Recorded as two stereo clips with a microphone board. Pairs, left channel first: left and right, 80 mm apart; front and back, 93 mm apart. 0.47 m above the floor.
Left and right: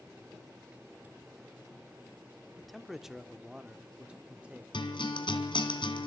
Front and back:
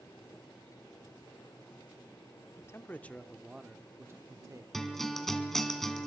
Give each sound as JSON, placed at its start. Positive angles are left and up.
{"t": 2.6, "sound": "a man speaking", "azimuth_deg": 0, "distance_m": 0.9}
{"t": 4.7, "sound": "a guitar", "azimuth_deg": 85, "distance_m": 2.0}